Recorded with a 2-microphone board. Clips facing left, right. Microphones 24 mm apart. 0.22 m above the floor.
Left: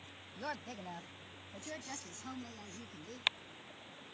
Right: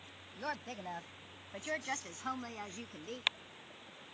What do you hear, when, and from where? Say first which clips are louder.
0.4 s a woman speaking: right 2 dB; 10° right (ahead or behind); by 3.2 s 55° right (ahead or behind)